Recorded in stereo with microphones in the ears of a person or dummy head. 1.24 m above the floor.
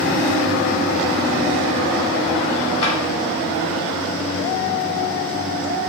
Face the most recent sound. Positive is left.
turn(degrees=35)  # may be behind; listen again after turning